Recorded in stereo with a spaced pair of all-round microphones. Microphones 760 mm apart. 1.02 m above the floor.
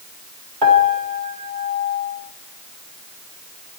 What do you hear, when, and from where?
0.6 s a piano: 85° right, 2.5 m